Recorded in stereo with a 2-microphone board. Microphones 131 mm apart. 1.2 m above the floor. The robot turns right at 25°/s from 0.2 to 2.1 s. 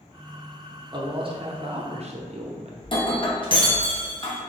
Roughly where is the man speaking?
Right.